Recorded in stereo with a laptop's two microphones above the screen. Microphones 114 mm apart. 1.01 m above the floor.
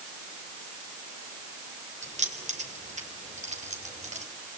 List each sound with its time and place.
2.0 s keys jangling: 75° right (ahead or behind), 3 m; by 4.2 s 80° right, 4 m